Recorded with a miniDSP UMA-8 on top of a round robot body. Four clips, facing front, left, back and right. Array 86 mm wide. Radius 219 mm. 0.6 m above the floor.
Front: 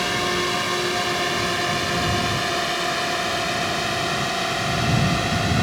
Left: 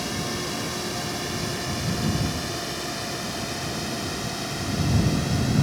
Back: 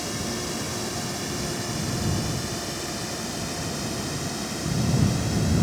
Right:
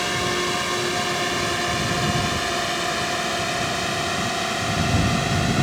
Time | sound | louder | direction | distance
0.0 | a drone | right 6 dB, front 8 dB | 35° right | ?